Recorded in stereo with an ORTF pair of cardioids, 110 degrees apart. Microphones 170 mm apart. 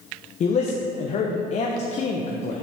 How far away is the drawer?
I don't hear a drawer.